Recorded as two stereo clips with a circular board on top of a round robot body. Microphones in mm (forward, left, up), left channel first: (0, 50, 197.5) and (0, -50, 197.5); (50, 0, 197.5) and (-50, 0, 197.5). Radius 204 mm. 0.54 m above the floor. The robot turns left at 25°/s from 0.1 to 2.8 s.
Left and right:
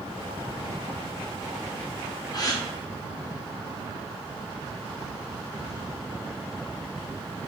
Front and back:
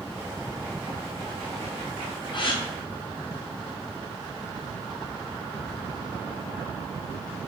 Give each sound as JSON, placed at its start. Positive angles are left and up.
{"t": 2.3, "sound": "a gasp", "azimuth_deg": 40, "distance_m": 0.9}